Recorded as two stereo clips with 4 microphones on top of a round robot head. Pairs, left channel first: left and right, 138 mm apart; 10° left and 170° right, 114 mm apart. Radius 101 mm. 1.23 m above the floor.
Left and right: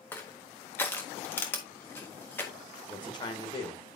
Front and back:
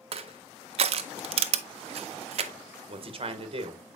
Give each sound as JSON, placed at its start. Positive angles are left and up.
{"t": 0.1, "sound": "crushing", "azimuth_deg": 170, "distance_m": 0.5}
{"t": 2.9, "sound": "a man speaking", "azimuth_deg": 155, "distance_m": 1.2}